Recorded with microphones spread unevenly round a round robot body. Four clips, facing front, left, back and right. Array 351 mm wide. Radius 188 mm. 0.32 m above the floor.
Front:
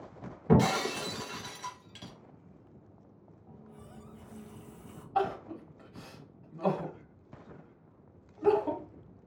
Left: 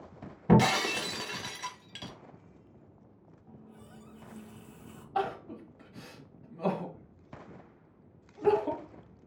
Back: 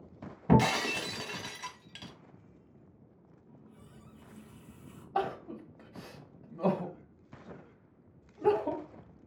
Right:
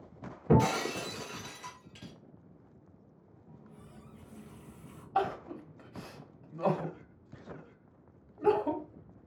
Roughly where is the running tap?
Ahead left.